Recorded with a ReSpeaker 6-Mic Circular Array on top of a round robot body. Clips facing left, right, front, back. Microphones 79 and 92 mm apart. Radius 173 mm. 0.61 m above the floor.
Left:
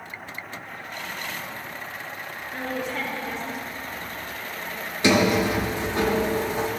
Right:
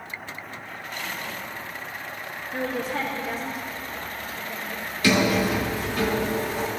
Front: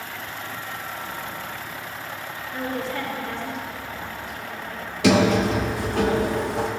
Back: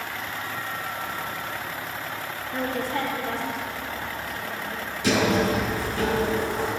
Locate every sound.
2.5 s a woman speaking: 135° right, 2.0 m
5.0 s a sliding door: 25° left, 0.8 m